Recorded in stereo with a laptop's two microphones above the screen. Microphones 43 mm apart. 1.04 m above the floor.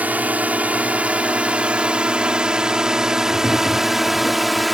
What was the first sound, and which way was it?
A drone, 40° right (ahead or behind).